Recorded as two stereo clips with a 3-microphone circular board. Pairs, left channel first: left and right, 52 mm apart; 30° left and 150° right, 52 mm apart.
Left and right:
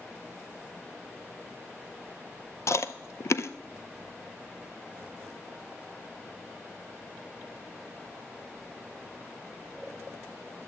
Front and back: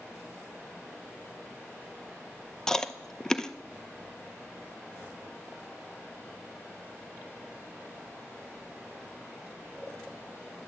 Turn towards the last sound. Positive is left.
turn(degrees=110)